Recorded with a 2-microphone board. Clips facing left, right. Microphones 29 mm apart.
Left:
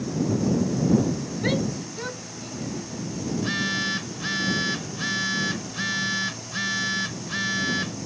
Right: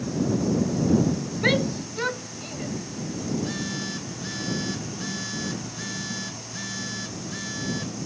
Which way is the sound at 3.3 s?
45° left (ahead or behind).